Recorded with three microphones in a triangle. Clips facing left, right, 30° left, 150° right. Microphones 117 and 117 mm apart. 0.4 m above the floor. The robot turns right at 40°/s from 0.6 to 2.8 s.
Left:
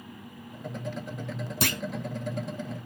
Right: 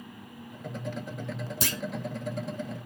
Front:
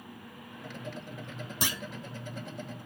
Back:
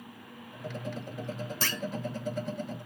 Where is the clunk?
105° left, 0.5 m; by 1.8 s 115° left, 0.5 m.